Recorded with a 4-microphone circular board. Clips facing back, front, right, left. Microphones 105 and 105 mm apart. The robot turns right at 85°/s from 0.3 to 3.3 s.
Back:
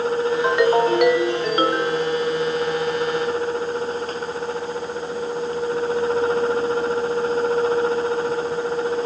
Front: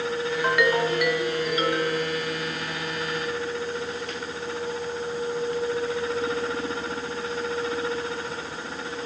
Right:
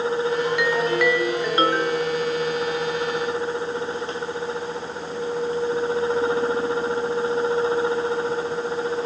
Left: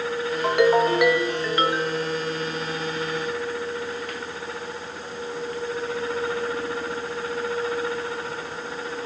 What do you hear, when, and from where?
0.4 s a ringtone: 110° left, 0.9 m; by 2.0 s 115° right, 0.9 m